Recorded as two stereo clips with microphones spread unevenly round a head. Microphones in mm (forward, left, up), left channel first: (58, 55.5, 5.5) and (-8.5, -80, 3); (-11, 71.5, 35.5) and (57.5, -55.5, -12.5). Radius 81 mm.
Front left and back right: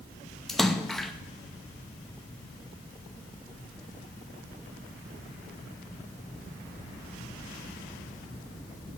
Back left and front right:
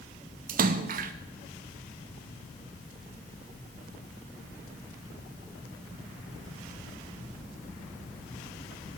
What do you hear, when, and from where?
0.5 s a splash: 25° right, 0.6 m